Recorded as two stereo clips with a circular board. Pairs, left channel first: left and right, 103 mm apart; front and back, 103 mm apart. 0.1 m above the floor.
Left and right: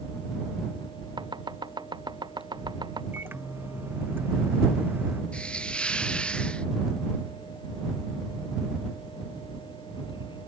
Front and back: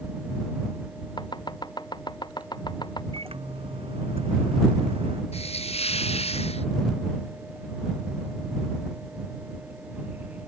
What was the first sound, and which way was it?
Chopping, 45° right.